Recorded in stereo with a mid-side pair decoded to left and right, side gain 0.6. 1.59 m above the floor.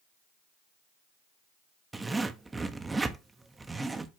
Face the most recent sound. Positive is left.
turn(degrees=-15)